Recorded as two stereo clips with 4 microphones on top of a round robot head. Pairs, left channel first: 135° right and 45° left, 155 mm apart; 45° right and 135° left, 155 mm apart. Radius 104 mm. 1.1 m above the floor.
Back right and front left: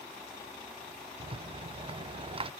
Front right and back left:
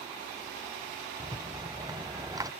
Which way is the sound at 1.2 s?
80° left.